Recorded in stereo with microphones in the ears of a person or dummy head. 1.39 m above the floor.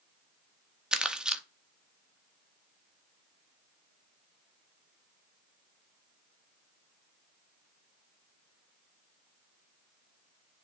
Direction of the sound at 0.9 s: Centre (ahead or behind).